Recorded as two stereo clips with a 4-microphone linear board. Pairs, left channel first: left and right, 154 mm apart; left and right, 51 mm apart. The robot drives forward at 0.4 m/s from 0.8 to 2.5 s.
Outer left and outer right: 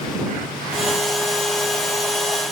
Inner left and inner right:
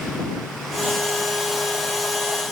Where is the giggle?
No giggle in this recording.